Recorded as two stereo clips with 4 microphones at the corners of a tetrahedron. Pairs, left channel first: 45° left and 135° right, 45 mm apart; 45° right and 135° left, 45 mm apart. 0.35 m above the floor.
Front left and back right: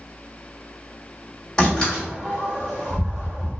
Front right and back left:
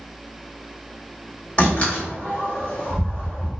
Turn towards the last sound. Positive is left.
turn(degrees=-20)